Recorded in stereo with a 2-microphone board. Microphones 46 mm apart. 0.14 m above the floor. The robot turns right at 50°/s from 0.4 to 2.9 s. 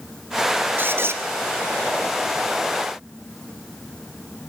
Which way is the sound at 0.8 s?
50° right (ahead or behind).